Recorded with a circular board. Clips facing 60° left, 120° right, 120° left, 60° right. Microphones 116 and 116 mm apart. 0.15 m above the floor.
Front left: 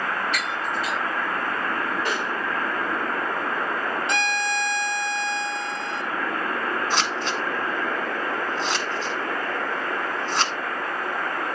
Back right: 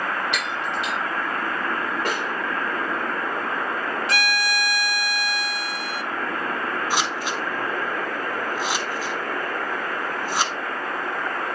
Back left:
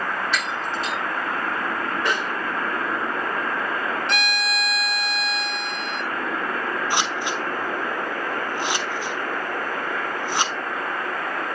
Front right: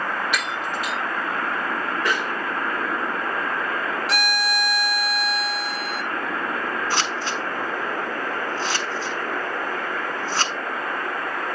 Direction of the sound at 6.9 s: 170° left.